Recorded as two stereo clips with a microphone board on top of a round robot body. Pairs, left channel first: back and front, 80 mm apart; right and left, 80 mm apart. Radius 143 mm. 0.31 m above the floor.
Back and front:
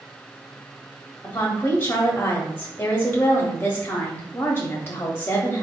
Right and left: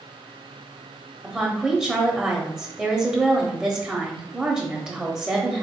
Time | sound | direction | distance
1.2 | a woman speaking | 160° left | 0.9 m